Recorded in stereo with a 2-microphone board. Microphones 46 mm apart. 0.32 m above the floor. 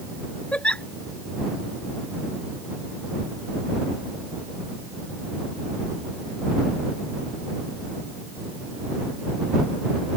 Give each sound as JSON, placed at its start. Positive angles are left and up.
{"t": 0.5, "sound": "a giggle", "side_deg": 25}